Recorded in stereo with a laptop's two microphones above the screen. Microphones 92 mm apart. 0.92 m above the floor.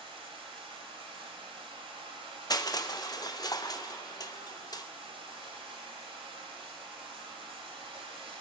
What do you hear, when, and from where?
0.0 s running water: 70° right (ahead or behind), 2 m
2.5 s crushing: 40° left (ahead or behind), 0.6 m